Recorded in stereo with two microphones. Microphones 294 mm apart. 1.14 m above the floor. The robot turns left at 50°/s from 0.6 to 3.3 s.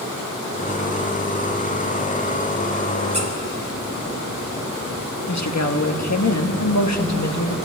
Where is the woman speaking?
60° left (ahead or behind), 1.4 m.